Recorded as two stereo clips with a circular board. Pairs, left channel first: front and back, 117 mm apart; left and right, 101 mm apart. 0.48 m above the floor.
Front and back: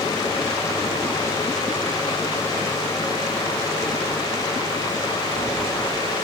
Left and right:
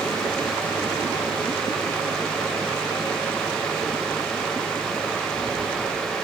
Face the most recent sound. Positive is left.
No sound to turn to.